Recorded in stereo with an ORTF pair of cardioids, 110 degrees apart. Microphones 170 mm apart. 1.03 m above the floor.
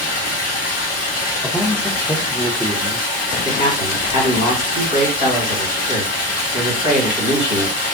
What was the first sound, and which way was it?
Running water, 55° left.